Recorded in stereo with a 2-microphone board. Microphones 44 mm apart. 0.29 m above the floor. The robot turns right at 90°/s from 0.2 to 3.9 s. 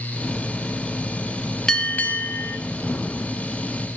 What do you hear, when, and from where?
1.7 s a bell: 20° left, 1.1 m; by 2.6 s 100° left, 1.1 m